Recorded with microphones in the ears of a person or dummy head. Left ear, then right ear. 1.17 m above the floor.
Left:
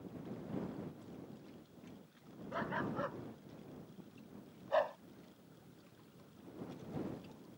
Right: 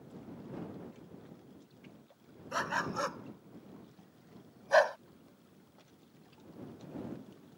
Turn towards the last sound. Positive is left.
turn(degrees=-65)  # may be behind; listen again after turning